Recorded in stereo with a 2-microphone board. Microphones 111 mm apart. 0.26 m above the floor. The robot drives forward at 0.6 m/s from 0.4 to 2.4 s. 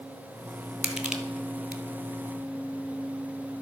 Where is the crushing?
5° right (ahead or behind), 1.4 m; by 1.8 s 10° right (ahead or behind), 0.8 m.